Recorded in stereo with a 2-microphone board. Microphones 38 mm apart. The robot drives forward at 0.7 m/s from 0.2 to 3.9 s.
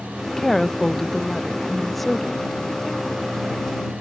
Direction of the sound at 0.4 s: 10° left (ahead or behind).